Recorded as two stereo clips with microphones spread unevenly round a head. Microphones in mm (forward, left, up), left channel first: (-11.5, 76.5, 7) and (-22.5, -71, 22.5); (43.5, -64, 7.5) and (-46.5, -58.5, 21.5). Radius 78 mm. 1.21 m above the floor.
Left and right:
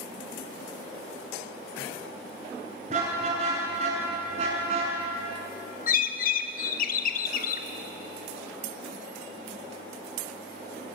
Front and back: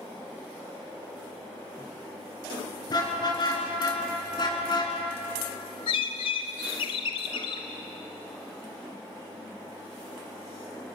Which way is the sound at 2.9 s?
45° right.